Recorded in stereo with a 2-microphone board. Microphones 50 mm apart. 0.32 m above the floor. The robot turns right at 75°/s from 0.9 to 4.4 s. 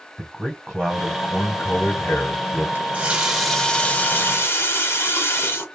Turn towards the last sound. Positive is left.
turn(degrees=75)